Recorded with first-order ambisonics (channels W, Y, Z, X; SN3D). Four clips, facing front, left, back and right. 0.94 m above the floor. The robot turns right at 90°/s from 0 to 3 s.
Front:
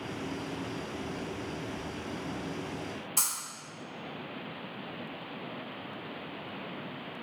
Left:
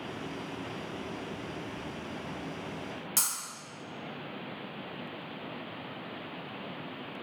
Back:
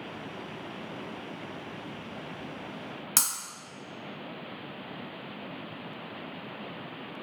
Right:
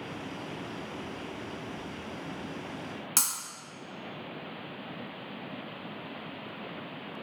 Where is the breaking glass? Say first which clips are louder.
Right 2 dB, back 4 dB; 155° right, 1.5 m.